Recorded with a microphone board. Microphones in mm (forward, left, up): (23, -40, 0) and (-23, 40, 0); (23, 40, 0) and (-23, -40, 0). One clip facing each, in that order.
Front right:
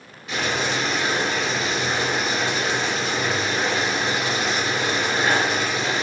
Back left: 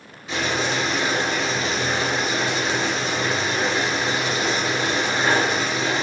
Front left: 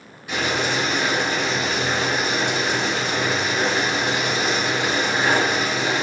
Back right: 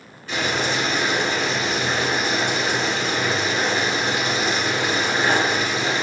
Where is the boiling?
130° left, 1.8 m.